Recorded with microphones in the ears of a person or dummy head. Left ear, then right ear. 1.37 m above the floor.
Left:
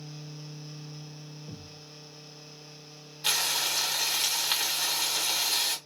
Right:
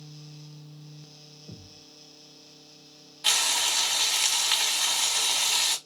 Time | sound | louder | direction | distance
1.5 | a thud | left 2 dB | 50° left (ahead or behind) | 1.1 m
3.2 | frying | right 3 dB | 10° right (ahead or behind) | 2.0 m